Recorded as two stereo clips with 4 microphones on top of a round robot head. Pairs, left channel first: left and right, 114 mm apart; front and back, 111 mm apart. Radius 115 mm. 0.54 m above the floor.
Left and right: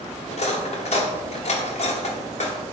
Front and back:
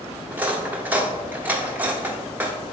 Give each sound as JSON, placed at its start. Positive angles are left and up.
{"t": 0.3, "sound": "cutlery clinking", "azimuth_deg": 105, "distance_m": 1.4}